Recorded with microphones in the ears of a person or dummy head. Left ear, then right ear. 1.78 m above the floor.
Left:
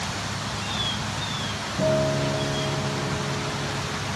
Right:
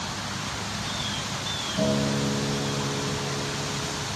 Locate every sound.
1.8 s a guitar: 80° right, 2.5 m